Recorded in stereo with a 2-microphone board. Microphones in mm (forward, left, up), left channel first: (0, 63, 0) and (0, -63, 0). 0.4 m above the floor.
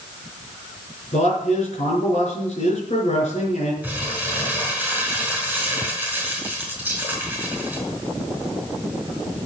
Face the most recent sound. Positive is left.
turn(degrees=-10)  # may be behind; listen again after turning